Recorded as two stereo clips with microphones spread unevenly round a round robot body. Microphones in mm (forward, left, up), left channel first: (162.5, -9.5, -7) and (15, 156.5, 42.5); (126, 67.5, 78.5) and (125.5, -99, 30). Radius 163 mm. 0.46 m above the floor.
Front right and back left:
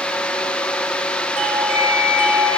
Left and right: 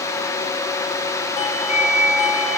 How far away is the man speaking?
I don't hear a man speaking.